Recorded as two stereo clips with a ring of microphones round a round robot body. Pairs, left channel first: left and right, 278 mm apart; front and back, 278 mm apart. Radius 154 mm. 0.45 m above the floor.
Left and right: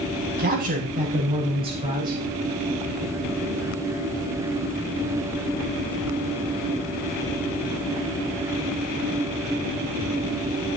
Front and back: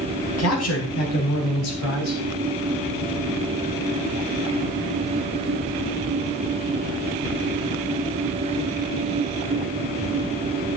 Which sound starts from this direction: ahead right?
A man speaking, at 0.4 s.